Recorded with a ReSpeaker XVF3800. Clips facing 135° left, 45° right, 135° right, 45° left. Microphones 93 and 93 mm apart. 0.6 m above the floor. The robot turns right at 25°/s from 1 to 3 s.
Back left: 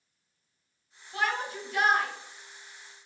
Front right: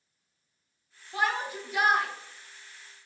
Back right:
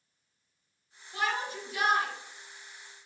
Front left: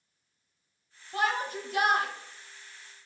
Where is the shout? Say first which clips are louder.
Front right 1 dB, front left 3 dB; 15° left, 1.3 m; by 2.1 s 40° left, 1.3 m.